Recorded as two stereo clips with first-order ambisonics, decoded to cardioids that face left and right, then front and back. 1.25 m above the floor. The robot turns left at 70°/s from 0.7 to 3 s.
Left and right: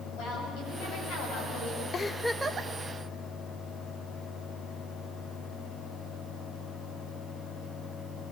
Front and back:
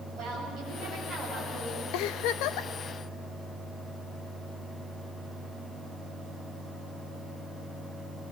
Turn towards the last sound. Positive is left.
turn(degrees=-50)